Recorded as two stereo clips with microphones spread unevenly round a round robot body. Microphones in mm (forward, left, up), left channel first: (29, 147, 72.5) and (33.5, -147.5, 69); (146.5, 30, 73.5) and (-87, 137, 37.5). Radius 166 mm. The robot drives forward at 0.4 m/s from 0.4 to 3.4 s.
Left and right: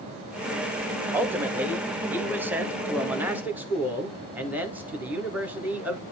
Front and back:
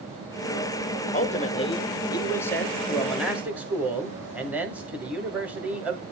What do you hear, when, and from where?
1.1 s a man speaking: 20° right, 1.5 m; by 6.0 s 160° right, 1.5 m